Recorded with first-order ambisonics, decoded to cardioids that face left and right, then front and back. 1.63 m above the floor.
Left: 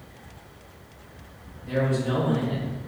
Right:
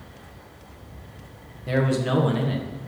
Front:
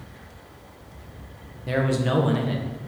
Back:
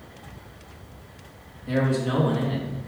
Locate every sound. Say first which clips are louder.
1.7 s a man speaking: right 2 dB, front 1 dB; 40° right, 1.7 m